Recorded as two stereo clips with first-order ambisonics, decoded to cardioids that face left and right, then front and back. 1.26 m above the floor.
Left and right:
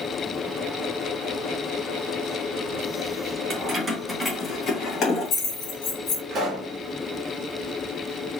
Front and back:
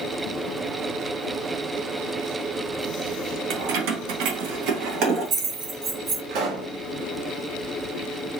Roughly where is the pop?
Behind right.